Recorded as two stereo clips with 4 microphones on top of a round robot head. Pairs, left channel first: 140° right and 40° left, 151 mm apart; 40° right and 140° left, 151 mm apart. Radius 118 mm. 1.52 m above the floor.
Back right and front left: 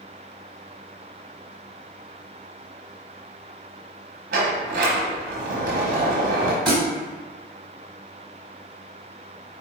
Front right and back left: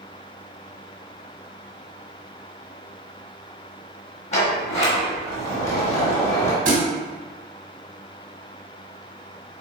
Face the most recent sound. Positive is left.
turn(degrees=135)